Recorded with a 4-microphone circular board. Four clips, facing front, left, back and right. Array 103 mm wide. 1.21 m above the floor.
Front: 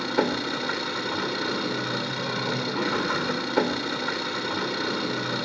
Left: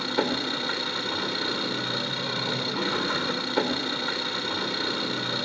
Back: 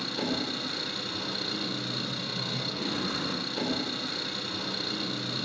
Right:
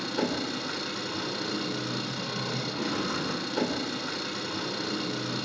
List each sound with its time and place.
0.0 s an engine running: 20° left, 3 m